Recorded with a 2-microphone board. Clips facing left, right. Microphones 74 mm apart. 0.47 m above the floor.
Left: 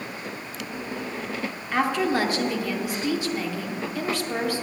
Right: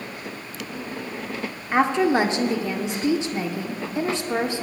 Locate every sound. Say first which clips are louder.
1.7 s a woman speaking: right 4 dB; 25° right (ahead or behind), 0.7 m